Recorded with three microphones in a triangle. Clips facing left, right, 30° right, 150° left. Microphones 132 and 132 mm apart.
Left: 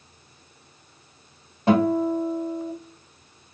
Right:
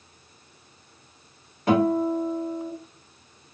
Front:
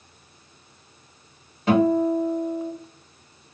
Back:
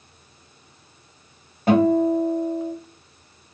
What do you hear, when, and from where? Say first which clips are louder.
1.7 s a guitar: left 1 dB, back 2 dB; 135° left, 2 m